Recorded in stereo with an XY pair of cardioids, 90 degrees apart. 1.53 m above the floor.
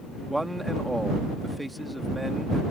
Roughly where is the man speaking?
Ahead.